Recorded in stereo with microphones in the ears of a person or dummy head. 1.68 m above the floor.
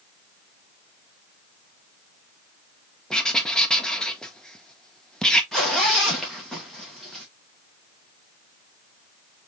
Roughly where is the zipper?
Centre.